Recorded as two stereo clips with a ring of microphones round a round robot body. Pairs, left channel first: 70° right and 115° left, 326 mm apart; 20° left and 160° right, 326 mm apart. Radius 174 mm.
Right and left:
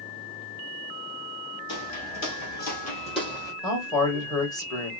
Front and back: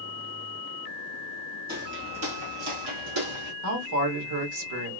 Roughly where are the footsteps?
Right.